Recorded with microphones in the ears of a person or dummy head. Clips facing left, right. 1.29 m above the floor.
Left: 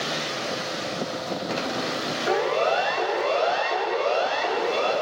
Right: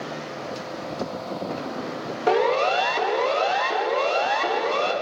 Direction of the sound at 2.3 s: 60° right (ahead or behind).